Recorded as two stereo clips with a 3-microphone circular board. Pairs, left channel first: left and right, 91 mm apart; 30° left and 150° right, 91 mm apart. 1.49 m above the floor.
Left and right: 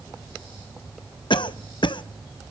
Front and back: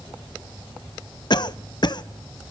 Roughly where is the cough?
Ahead left.